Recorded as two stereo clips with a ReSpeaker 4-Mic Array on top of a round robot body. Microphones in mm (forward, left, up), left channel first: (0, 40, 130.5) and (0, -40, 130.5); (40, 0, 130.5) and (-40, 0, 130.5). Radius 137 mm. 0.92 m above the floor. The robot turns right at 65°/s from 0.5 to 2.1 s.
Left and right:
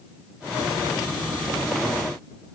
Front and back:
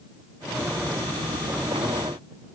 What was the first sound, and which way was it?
Only background noise.